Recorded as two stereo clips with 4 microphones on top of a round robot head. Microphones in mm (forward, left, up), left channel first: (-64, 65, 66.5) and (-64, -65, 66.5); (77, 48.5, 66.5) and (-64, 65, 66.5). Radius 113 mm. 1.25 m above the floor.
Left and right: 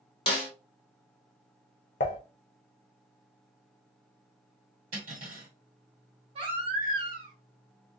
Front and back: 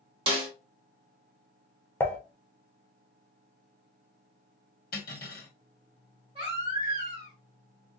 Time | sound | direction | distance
0.3 | a snare drum | 130° left | 1.1 m
2.0 | dishes clattering | 70° left | 0.7 m
4.9 | cutlery clinking | 45° right | 1.5 m
6.3 | a baby crying | 125° right | 1.2 m